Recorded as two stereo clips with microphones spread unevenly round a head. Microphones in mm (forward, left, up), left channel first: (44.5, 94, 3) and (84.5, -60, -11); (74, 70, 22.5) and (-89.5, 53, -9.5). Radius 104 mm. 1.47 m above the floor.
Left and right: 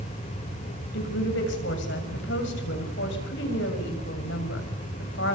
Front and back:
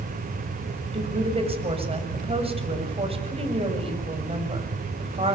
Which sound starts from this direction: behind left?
A woman speaking, at 0.9 s.